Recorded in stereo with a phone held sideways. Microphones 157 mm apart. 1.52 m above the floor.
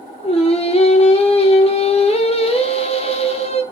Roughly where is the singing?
Left.